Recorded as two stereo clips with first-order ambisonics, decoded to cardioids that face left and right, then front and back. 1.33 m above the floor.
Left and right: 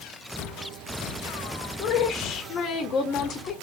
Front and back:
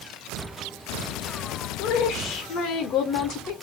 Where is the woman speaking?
35° left, 0.8 m.